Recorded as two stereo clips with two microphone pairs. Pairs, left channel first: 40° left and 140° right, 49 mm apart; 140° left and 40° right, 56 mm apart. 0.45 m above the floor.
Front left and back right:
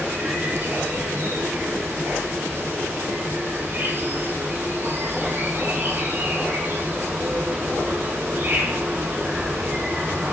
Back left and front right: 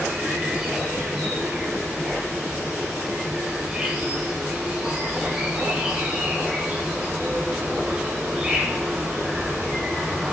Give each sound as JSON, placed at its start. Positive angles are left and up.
{"t": 0.0, "sound": "an insect", "azimuth_deg": -110, "distance_m": 3.5}